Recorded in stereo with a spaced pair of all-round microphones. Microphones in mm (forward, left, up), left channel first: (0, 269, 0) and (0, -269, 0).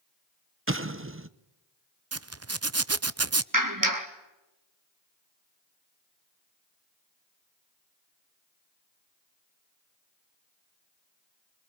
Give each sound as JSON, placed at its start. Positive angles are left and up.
{"t": 0.7, "sound": "an explosion", "side_deg": -25, "distance_m": 0.8}
{"t": 2.1, "sound": "a zipper", "side_deg": -30, "distance_m": 0.6}
{"t": 3.5, "sound": "a clap", "side_deg": -35, "distance_m": 2.5}